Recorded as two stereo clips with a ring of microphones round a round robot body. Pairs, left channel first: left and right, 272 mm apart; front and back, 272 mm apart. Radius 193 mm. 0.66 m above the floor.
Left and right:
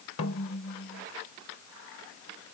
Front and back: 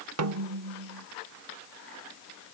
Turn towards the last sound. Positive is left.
turn(degrees=150)